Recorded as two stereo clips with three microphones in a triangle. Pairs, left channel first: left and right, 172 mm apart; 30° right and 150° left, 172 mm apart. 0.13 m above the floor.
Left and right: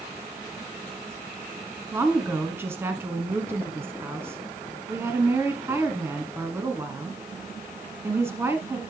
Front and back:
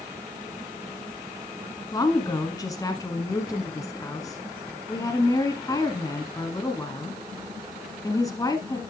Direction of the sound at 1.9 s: 45° right.